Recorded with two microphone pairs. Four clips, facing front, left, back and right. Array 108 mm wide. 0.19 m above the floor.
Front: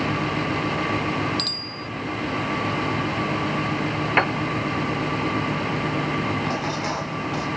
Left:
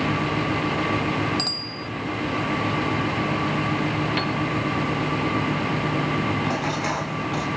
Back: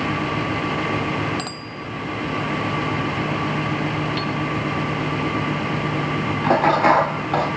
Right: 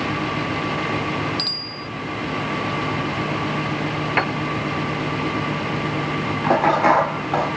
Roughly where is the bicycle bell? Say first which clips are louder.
Even, back 2 dB; behind left.